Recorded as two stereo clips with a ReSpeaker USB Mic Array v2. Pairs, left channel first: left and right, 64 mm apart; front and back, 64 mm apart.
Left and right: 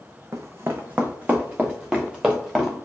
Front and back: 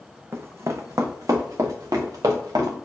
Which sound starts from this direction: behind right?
Running footsteps, at 0.3 s.